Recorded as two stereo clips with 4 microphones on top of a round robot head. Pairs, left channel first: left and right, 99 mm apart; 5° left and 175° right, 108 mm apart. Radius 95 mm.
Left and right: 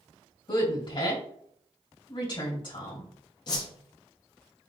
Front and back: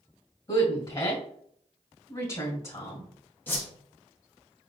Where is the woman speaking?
55° left, 1.9 m.